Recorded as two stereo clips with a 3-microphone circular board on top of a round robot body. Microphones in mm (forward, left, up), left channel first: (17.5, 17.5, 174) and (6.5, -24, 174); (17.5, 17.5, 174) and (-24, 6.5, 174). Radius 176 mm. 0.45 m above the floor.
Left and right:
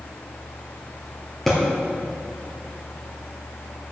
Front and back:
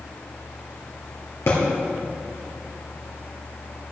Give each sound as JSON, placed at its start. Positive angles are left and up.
{"t": 1.5, "sound": "a thud", "azimuth_deg": -10, "distance_m": 3.0}